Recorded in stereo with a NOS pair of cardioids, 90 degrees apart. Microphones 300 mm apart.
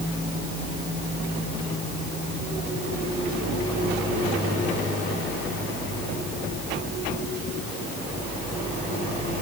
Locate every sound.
Only background noise.